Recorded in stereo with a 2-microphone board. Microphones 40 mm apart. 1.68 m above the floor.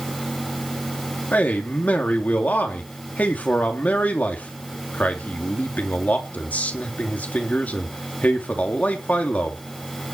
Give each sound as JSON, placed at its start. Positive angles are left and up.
{"t": 1.3, "sound": "a man speaking", "side_deg": 45, "distance_m": 3.5}